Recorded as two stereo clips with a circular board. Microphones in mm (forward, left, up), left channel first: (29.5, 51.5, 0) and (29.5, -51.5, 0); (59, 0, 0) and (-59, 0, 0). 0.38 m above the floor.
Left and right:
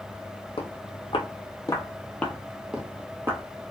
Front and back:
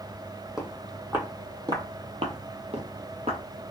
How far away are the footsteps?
About 1.0 m.